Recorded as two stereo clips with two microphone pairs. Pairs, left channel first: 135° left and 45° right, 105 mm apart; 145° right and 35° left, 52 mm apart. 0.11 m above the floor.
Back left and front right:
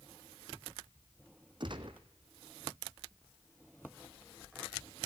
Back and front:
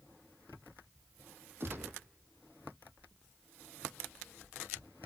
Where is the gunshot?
5° right, 1.1 m.